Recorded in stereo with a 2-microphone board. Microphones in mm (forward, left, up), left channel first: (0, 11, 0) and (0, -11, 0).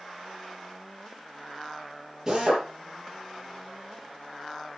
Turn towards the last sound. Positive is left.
turn(degrees=-20)  # may be behind; listen again after turning